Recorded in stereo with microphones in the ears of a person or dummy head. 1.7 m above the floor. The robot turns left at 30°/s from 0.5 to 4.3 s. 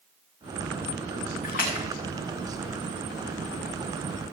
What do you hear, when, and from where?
1.4 s a splash: 40° left (ahead or behind), 2.5 m; by 1.9 s 50° left (ahead or behind), 2.5 m